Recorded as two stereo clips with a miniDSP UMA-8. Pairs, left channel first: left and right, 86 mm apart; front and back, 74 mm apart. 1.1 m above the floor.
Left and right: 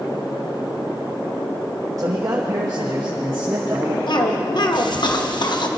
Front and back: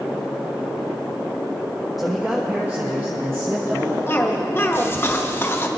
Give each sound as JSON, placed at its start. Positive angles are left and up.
{"t": 2.0, "sound": "a man speaking", "azimuth_deg": -90, "distance_m": 0.7}
{"t": 4.1, "sound": "a cough", "azimuth_deg": 60, "distance_m": 1.0}